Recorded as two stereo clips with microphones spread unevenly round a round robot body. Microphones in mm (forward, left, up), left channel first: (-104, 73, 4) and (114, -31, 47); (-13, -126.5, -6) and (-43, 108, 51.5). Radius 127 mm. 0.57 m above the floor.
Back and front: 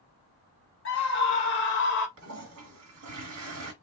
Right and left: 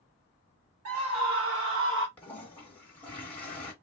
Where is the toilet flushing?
10° right, 1.4 m.